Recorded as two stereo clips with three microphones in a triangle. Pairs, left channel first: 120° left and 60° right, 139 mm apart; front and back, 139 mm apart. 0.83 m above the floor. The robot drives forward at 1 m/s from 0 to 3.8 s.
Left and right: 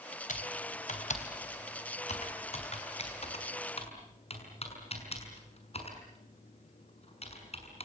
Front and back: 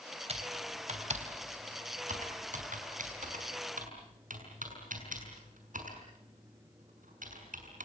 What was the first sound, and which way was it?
Typing on a keyboard, 140° left.